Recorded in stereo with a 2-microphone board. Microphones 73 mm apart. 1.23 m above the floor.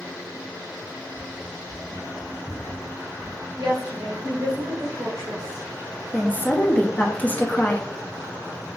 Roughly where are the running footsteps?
Left.